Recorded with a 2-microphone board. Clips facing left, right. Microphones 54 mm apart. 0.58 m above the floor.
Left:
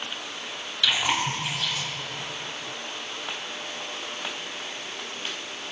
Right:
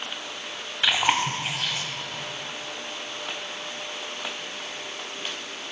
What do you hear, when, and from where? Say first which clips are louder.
0.8 s chewing: right 2 dB; 40° right (ahead or behind), 1.9 m